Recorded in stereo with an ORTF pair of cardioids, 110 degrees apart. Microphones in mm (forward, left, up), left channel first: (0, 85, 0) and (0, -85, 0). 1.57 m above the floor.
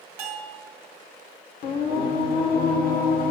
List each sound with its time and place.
0.2 s a bell: 65° right, 1.5 m
1.6 s singing: 60° left, 1.0 m